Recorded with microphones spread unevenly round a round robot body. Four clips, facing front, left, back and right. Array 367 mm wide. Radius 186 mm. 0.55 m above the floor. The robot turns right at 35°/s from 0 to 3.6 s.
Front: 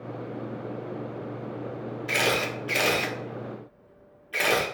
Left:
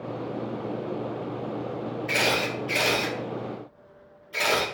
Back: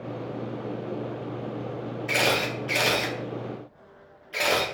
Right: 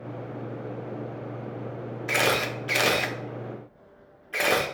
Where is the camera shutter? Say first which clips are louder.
Right 2 dB, back 1 dB; 120° right, 0.8 m; by 4.7 s 65° right, 0.8 m.